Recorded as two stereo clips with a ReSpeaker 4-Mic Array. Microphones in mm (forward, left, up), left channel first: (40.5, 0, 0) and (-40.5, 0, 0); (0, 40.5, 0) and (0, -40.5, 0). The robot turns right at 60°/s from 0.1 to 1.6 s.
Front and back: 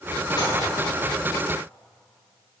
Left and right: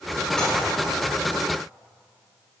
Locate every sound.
0.4 s dishes clattering: 5° left, 4 m; by 0.6 s 20° left, 4 m